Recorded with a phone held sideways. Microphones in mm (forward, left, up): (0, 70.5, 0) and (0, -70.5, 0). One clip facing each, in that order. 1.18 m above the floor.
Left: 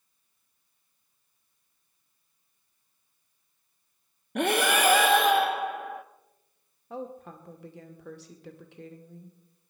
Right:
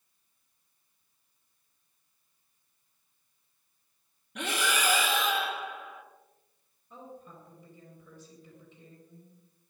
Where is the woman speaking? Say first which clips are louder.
Left 9 dB; 75° left (ahead or behind), 2 m.